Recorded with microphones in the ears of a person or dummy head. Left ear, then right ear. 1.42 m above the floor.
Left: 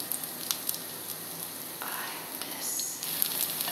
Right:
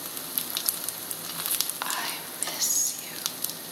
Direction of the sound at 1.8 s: 25° right (ahead or behind).